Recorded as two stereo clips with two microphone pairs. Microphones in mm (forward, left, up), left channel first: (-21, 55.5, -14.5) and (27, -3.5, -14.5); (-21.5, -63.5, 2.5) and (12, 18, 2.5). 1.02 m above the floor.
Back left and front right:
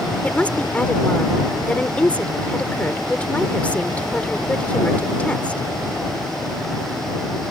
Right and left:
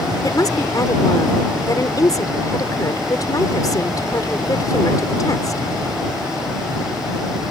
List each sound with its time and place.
0.2 s a woman speaking: 160° right